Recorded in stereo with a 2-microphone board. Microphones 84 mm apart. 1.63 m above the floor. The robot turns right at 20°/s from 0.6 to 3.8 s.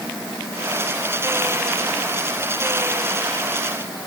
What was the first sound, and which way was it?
Only background noise.